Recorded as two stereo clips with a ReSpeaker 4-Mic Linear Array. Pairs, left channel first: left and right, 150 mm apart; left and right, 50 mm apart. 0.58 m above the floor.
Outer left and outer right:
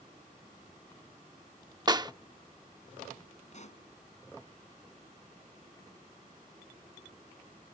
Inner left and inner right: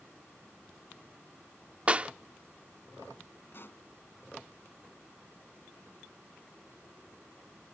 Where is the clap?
25° right (ahead or behind).